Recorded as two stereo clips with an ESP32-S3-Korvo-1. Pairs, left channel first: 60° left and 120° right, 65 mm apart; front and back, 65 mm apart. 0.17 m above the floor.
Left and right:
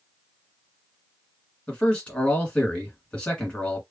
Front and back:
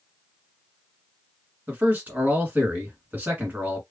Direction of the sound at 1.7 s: 130° left.